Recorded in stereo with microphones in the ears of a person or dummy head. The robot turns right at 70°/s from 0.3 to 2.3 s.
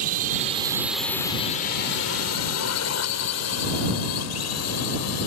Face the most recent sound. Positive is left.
turn(degrees=80)